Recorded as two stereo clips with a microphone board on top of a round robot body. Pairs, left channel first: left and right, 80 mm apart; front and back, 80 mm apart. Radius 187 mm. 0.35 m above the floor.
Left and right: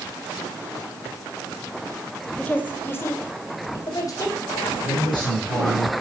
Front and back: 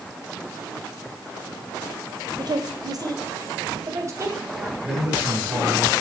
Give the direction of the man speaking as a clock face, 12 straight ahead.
9 o'clock.